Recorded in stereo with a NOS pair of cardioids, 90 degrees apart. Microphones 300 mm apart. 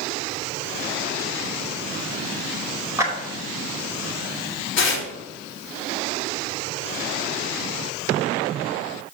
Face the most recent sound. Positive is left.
turn(degrees=40)